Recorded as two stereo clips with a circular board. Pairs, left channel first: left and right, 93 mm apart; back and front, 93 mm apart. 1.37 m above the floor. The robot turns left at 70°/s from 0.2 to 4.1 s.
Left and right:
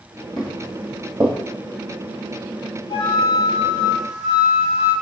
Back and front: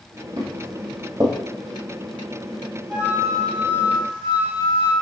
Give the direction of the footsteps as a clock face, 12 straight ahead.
12 o'clock.